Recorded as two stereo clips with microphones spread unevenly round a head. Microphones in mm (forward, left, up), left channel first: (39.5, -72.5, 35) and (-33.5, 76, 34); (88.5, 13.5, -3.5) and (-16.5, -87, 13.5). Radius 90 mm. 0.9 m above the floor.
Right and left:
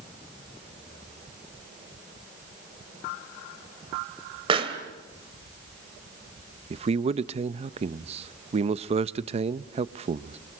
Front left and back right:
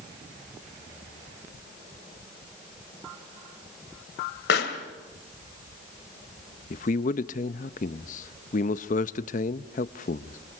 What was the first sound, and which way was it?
A pop, 55° left.